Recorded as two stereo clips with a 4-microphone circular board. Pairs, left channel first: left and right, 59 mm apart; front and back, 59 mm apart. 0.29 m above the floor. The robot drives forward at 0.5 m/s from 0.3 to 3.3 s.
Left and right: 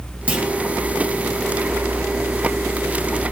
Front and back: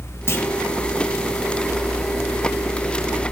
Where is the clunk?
30° right, 1.7 m; by 0.5 s 35° right, 1.6 m.